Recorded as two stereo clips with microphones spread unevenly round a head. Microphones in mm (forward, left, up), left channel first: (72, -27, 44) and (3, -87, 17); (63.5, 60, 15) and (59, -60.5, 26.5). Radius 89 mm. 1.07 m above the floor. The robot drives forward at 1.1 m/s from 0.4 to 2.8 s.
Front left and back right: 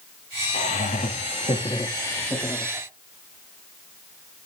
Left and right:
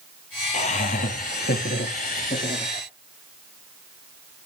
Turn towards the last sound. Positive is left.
turn(degrees=135)